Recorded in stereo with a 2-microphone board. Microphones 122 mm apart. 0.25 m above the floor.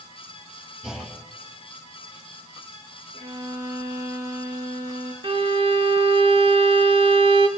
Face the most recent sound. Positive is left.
turn(degrees=-45)  # may be behind; listen again after turning